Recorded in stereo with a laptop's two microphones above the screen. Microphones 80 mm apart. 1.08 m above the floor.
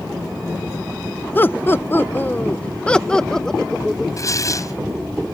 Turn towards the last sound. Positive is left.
turn(degrees=45)  # may be behind; listen again after turning